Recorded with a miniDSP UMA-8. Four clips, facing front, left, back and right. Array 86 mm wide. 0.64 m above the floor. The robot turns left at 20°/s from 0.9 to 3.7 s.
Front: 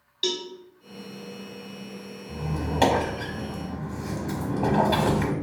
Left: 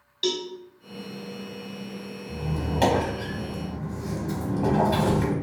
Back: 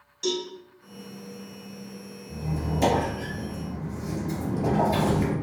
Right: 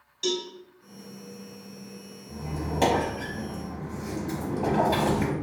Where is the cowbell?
35° left, 0.5 m.